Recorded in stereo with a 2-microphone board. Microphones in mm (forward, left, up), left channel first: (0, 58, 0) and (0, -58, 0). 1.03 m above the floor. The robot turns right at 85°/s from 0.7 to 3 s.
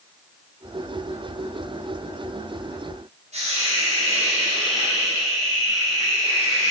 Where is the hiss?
75° right (ahead or behind), 4.5 m.